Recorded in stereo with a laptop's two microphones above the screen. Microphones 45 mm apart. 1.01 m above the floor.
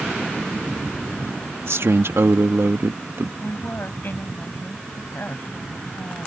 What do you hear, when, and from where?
1.6 s a man speaking: 70° right (ahead or behind); by 3.3 s 60° right (ahead or behind)
3.4 s a woman speaking: 50° left (ahead or behind)